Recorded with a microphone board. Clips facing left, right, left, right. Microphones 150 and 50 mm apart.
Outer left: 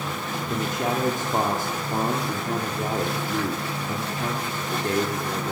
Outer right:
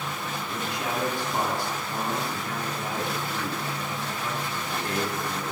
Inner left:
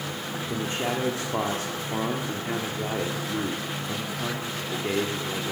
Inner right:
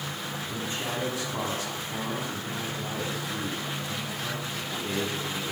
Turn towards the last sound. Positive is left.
turn(degrees=45)  # may be behind; listen again after turning